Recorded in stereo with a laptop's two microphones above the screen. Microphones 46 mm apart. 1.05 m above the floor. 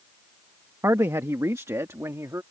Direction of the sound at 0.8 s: 70° right (ahead or behind).